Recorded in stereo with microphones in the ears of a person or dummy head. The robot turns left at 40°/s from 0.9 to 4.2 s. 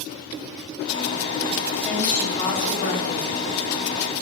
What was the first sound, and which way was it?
A woman speaking, straight behind.